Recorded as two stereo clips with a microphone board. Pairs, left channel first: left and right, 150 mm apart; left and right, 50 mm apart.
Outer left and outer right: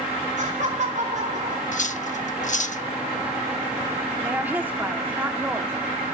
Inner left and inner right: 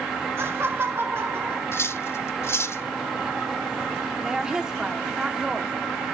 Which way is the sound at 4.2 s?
15° right (ahead or behind).